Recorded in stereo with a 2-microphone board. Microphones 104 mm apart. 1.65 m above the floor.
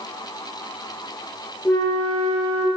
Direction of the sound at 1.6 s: 20° left (ahead or behind).